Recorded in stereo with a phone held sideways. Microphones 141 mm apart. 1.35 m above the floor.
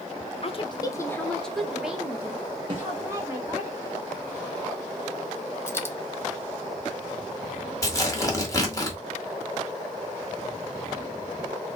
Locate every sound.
0.4 s a woman speaking: 45° left (ahead or behind), 0.7 m; by 3.7 s 25° right (ahead or behind), 2 m
2.7 s a snare drum: 40° right (ahead or behind), 1.4 m
5.7 s a dropped coin: 15° left (ahead or behind), 0.6 m
7.8 s tearing paper: 25° left (ahead or behind), 1.2 m